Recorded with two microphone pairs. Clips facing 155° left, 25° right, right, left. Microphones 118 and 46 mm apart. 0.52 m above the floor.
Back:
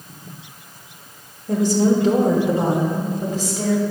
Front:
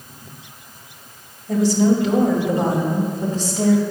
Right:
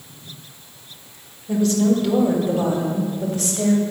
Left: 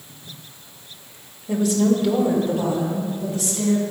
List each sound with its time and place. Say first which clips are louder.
1.5 s a woman speaking: front 1 dB, right 1 dB; 155° left, 1.9 m; by 3.8 s 120° right, 3 m